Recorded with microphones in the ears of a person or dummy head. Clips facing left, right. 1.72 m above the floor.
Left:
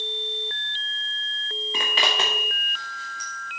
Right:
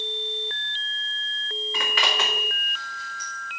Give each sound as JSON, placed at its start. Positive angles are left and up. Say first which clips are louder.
{"t": 1.7, "sound": "a zipper", "louder": "left 1 dB", "side_deg": 25, "distance_m": 1.1}